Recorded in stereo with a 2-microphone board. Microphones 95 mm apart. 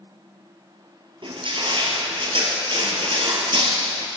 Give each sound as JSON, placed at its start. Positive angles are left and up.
{"t": 1.2, "sound": "crushing", "side_deg": -65, "distance_m": 2.0}